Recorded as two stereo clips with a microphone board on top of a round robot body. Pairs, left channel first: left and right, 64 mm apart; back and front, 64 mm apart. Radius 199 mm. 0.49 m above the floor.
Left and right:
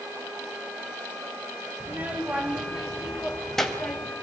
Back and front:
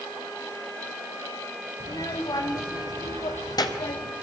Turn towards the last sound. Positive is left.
turn(degrees=165)